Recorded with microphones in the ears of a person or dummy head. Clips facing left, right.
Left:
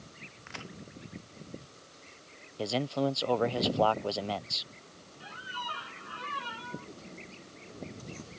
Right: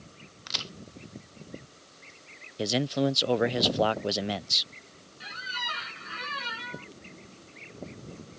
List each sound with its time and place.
0.5 s a crack: 50° right (ahead or behind)
2.6 s a man speaking: 20° right (ahead or behind)
5.2 s a squeak: 30° right (ahead or behind)